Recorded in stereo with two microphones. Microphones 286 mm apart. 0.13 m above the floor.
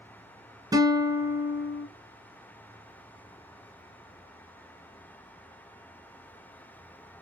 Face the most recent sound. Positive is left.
turn(degrees=-15)  # may be behind; listen again after turning